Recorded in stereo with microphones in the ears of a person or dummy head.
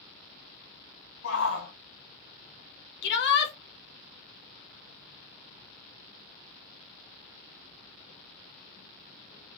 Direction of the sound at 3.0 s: 70° left (ahead or behind).